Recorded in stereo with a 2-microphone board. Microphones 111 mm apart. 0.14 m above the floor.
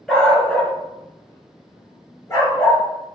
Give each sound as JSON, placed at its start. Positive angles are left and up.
{"t": 0.1, "sound": "a dog barking", "side_deg": 0, "distance_m": 0.7}